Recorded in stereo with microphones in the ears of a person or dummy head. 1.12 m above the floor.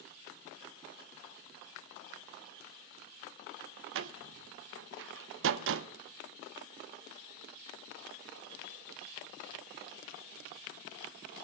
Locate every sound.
4.0 s a door slam: 70° right (ahead or behind), 0.6 m